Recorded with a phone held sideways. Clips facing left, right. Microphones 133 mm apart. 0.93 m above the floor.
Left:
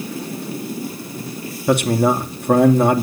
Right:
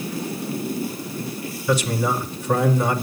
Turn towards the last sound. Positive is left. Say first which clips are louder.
# left 6 dB
turn(degrees=60)  # may be behind; listen again after turning